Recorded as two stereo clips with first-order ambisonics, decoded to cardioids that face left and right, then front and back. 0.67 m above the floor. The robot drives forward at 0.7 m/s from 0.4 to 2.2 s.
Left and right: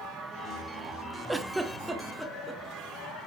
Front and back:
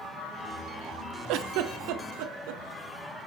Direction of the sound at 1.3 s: 175° right.